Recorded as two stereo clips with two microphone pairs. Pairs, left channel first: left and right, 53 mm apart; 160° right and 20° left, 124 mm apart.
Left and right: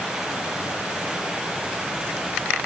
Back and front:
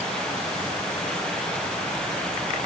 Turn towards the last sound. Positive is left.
No sound to turn to.